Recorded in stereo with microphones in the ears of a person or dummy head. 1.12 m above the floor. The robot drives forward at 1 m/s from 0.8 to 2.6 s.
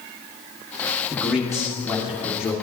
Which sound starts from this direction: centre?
A man speaking, at 1.1 s.